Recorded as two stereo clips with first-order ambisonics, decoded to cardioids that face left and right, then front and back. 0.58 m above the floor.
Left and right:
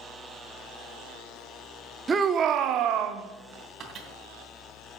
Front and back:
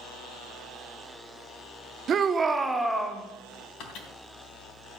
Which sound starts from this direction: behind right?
A shout, at 2.1 s.